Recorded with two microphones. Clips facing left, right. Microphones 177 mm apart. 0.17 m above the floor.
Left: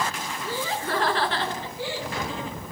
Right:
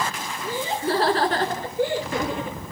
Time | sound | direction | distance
0.4 | laughter | 15° right (ahead or behind) | 1.7 m